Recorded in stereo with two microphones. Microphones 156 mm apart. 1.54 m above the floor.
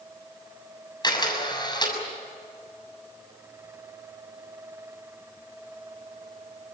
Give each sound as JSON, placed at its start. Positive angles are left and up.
{"t": 1.0, "sound": "a camera shutter", "side_deg": 30, "distance_m": 7.0}